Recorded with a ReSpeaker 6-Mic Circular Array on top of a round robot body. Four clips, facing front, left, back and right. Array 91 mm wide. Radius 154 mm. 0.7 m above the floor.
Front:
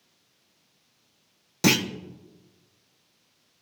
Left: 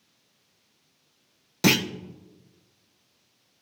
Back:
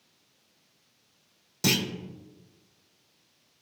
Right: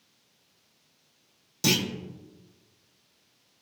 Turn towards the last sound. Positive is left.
turn(degrees=55)